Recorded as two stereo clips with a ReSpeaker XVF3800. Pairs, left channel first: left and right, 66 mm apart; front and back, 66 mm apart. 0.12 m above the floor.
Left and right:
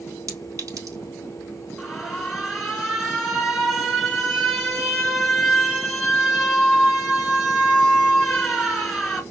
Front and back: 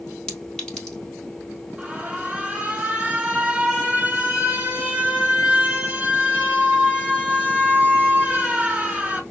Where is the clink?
75° right, 2.0 m.